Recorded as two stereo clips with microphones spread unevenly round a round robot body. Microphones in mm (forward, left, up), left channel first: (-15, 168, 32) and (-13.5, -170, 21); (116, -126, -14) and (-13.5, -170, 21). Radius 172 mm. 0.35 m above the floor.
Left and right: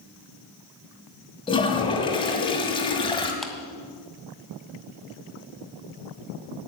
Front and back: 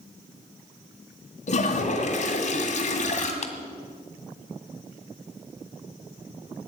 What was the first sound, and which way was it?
A toilet flushing, 15° left.